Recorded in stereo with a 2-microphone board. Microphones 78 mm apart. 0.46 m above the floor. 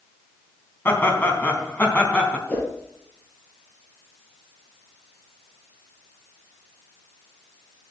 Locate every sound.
0.8 s laughter: 30° left (ahead or behind), 3.5 m; by 2.4 s 15° left (ahead or behind), 3.5 m
2.5 s a whoosh: 20° left (ahead or behind), 5 m